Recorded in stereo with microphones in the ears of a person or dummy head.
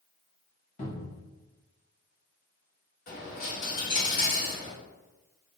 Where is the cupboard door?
35° left (ahead or behind), 1.2 m.